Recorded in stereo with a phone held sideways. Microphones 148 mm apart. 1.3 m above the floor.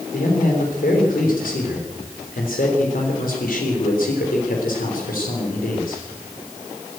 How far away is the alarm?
I don't hear an alarm.